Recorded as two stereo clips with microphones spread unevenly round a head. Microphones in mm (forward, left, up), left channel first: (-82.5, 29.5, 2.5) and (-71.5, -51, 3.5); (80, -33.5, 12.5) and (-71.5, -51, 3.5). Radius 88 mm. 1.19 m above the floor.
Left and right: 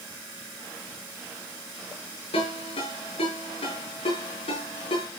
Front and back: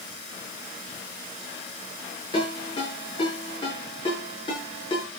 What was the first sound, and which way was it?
A ringtone, 70° left.